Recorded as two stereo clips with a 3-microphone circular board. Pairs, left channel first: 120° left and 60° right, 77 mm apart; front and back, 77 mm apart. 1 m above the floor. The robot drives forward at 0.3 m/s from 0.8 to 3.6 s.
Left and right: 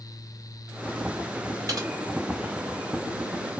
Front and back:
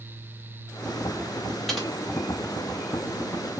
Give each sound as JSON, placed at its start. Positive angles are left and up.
{"t": 1.7, "sound": "typing on a keyboard", "azimuth_deg": -90, "distance_m": 1.6}